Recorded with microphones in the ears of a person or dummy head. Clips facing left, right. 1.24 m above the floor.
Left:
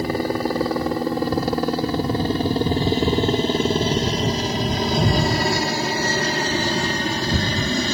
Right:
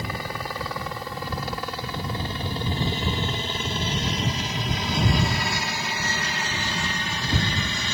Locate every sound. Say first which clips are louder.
0.0 s a helicopter: left 11 dB; 35° left (ahead or behind); by 7.9 s 40° left (ahead or behind)